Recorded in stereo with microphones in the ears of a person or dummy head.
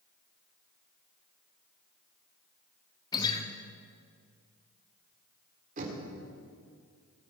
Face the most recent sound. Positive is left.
turn(degrees=-40)  # may be behind; listen again after turning